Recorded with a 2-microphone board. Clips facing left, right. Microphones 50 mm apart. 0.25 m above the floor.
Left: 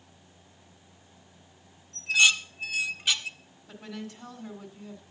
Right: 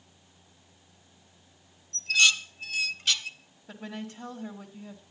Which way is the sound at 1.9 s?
10° left (ahead or behind).